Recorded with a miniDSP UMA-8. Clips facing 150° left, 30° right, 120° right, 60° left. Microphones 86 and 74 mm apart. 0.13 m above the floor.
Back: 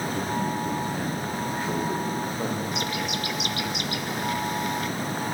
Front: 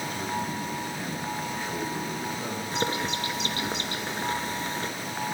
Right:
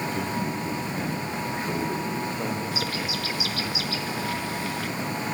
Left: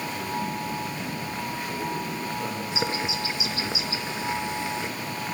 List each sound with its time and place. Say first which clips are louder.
0.1 s a man speaking: back 4 dB, right 2 dB; 155° right, 9.5 m; by 2.6 s 175° right, 9.5 m
2.7 s a bird: even, left 1 dB; 5° left, 1.6 m